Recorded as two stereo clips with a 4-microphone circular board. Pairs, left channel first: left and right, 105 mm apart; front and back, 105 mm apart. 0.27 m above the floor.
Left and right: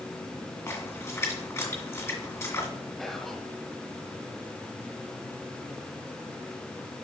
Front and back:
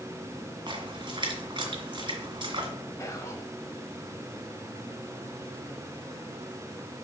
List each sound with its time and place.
0.7 s a splash: 150° left, 2 m
3.0 s whispering: 10° left, 1.0 m